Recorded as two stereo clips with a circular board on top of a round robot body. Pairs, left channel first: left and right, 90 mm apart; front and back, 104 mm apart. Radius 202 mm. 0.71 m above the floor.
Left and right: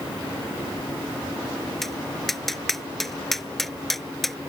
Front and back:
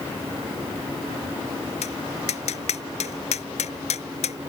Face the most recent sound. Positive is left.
turn(degrees=5)